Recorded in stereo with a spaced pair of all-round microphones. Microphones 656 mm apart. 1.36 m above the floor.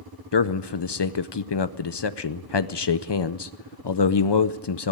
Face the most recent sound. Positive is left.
turn(degrees=40)  # may be behind; listen again after turning